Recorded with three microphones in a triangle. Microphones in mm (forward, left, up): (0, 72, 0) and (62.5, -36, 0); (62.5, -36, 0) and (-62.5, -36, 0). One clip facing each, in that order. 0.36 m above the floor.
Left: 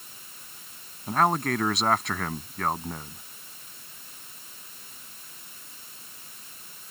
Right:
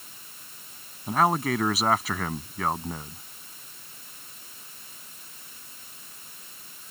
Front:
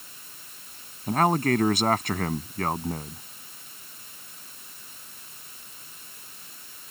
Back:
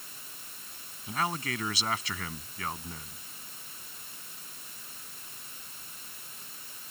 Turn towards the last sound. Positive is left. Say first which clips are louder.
# right 1 dB, front 11 dB
turn(degrees=30)